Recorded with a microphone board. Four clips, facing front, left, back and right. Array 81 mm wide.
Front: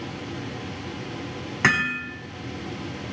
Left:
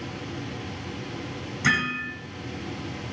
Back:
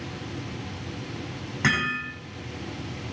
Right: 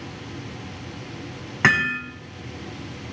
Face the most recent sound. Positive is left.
turn(degrees=-75)